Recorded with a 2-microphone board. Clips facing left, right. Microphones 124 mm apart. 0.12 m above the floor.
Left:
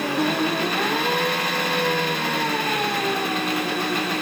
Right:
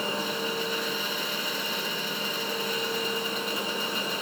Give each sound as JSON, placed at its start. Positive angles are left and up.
{"t": 0.0, "sound": "an engine running", "side_deg": 70}